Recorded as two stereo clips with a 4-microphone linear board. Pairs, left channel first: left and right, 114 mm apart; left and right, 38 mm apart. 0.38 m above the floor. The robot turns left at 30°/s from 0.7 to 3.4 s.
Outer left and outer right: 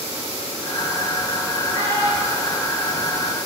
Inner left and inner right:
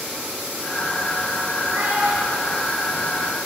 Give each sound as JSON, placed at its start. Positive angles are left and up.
{"t": 1.7, "sound": "a child speaking", "side_deg": -70, "distance_m": 1.9}